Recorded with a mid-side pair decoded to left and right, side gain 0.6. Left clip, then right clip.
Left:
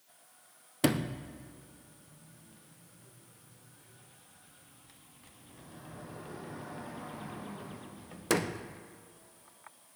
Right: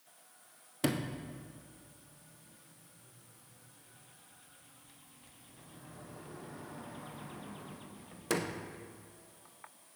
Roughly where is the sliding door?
Ahead left.